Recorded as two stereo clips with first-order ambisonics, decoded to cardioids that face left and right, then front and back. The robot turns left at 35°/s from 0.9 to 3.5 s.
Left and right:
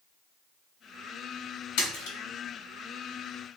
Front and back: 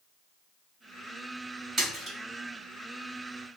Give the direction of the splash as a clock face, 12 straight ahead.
8 o'clock.